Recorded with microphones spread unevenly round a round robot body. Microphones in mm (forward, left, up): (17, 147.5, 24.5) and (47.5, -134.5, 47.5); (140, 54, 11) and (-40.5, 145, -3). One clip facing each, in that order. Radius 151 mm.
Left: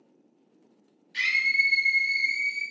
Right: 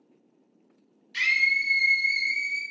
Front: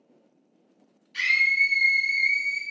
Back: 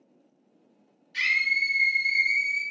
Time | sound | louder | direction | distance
1.1 | a scream | right 1 dB, front 3 dB | 140° right | 0.7 m